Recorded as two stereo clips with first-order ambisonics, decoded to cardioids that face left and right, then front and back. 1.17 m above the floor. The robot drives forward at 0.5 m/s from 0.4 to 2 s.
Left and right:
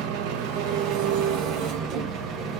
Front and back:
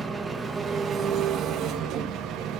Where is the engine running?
100° right, 1.1 m; by 2.6 s 135° right, 1.5 m.